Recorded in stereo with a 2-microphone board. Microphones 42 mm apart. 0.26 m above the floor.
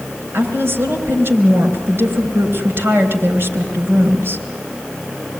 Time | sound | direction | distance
0.3 | a woman speaking | 60° right (ahead or behind) | 3.5 m